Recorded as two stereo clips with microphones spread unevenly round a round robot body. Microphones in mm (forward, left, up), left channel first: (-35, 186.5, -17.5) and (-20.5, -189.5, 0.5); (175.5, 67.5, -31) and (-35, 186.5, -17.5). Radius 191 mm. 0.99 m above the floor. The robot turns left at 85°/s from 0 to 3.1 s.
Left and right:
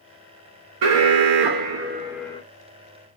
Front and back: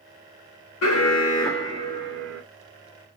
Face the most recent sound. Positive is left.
turn(degrees=110)